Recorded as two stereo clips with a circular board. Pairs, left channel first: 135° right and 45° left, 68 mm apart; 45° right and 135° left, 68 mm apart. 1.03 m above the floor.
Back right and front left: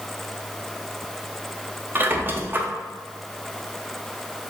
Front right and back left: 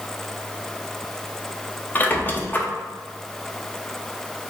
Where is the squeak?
Straight ahead, 0.6 m.